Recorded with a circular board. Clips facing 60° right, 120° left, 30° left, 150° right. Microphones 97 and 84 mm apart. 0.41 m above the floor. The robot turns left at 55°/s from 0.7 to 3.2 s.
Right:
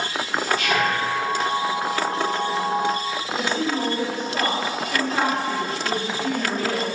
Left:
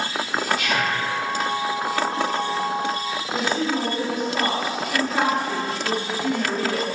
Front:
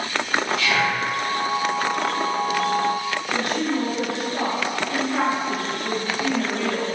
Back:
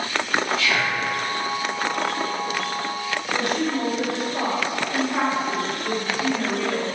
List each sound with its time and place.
0.6 s whispering: 20° right, 1.6 m; by 1.0 s 40° right, 1.6 m
3.3 s a woman speaking: 175° left, 1.9 m